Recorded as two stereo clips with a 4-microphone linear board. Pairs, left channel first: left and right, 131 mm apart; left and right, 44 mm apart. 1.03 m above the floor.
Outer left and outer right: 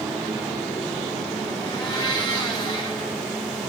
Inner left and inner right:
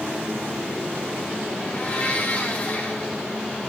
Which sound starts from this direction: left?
A blender, at 1.6 s.